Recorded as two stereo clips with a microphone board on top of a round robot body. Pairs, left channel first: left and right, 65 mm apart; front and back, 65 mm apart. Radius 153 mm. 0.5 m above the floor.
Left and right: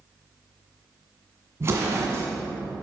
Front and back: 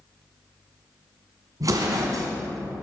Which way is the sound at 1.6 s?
145° right.